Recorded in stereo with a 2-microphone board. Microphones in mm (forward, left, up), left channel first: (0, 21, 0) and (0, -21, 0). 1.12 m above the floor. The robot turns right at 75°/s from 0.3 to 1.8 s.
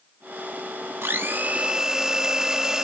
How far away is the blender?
About 1.4 m.